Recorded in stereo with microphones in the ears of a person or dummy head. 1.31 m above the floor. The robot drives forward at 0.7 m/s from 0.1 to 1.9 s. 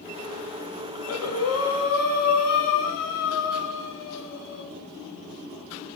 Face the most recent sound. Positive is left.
turn(degrees=70)  # may be behind; listen again after turning